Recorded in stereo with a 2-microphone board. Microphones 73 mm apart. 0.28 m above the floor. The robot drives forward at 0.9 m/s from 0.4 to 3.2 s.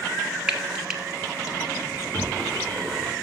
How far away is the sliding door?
About 3.5 m.